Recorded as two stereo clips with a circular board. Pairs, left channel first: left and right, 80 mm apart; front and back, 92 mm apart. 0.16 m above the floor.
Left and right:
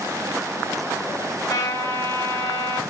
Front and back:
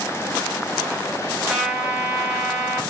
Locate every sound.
1.5 s a trumpet: 90° left, 2.5 m